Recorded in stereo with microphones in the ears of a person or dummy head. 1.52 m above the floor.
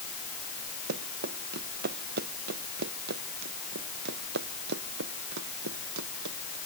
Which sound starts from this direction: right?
Running footsteps, at 0.9 s.